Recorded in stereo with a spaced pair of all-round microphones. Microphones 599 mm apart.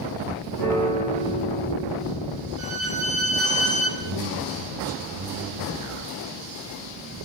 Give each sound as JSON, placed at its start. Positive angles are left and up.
{"t": 0.6, "sound": "a piano", "side_deg": 35, "distance_m": 10.0}
{"t": 2.6, "sound": "a violin", "side_deg": 90, "distance_m": 5.0}
{"t": 4.0, "sound": "a man speaking", "side_deg": -55, "distance_m": 5.5}